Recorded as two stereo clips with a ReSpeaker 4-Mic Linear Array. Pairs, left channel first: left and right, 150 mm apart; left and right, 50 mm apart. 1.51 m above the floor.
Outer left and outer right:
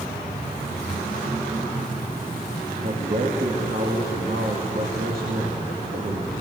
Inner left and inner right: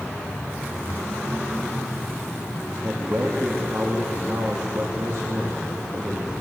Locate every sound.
2.8 s a man speaking: 70° right (ahead or behind), 2.5 m